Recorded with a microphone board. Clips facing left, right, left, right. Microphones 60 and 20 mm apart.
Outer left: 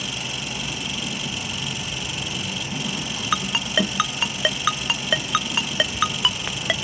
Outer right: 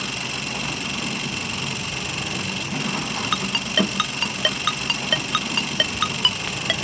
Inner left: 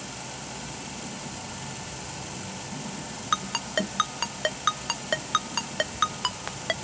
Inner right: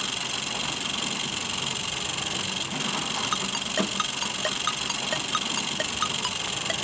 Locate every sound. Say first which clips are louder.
0.0 s an engine running: outer right 2 dB, inner right 9 dB; 55° right (ahead or behind)
3.3 s a ringtone: outer left 1 dB, inner right 1 dB; 10° left (ahead or behind)